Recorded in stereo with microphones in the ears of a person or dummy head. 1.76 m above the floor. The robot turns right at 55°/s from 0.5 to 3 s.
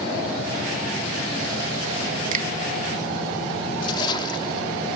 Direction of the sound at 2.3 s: 50° right (ahead or behind).